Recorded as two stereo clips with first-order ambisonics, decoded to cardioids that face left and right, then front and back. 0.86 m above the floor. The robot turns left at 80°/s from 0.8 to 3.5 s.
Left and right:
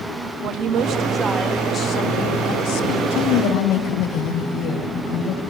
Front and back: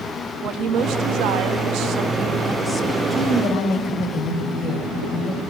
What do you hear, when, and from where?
0.4 s a woman speaking: 130° right, 1.2 m; by 3.0 s 50° left, 1.2 m
3.1 s a woman speaking: 80° left, 4 m; by 5.4 s 50° left, 4 m